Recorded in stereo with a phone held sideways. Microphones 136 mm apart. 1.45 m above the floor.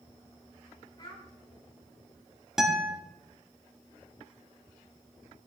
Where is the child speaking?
35° left (ahead or behind), 3 m.